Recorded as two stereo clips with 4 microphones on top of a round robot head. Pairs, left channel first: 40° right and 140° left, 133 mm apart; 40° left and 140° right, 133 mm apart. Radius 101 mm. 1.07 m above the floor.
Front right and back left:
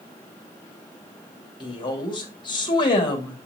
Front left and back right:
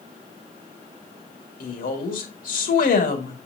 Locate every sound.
1.6 s a woman speaking: 20° left, 1.9 m